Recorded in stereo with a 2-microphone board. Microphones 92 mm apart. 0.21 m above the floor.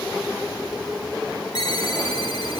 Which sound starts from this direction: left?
A ringtone, at 1.6 s.